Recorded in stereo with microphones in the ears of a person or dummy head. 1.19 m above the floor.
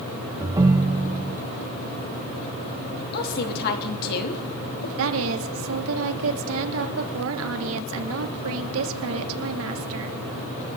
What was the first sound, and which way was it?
A ringtone, 20° right (ahead or behind).